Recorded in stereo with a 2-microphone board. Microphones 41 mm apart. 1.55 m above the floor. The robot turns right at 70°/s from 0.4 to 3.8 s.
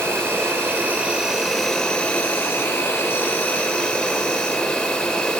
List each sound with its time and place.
0.0 s an insect: 85° right, 2.5 m; by 5.4 s 155° left, 2.5 m